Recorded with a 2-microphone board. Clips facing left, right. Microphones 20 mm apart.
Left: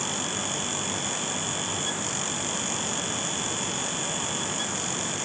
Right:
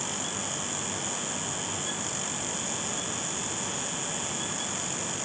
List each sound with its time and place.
Only background noise.